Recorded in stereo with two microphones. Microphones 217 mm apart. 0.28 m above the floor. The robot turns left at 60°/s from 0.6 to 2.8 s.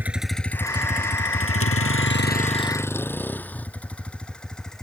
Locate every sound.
0.0 s a vehicle: 10° right (ahead or behind); by 4.8 s 5° left (ahead or behind)